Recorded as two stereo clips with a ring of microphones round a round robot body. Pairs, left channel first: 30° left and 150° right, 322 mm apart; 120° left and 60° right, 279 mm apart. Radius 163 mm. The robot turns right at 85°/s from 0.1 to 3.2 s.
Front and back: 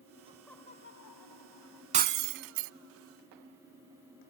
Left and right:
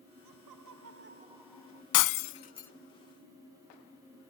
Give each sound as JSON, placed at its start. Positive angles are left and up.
{"t": 0.2, "sound": "laughter", "azimuth_deg": -80}
{"t": 1.9, "sound": "breaking glass", "azimuth_deg": 140}